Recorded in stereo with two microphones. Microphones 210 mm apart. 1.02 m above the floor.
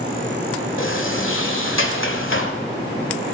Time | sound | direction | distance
0.8 | a sliding door | 70° left (ahead or behind) | 1.6 m